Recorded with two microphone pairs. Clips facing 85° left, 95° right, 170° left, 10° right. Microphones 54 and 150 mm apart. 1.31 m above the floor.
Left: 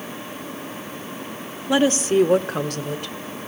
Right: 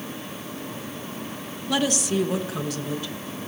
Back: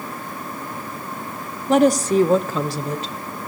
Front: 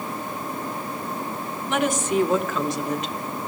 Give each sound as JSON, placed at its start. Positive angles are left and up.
{"t": 1.7, "sound": "a woman speaking", "azimuth_deg": 145, "distance_m": 0.6}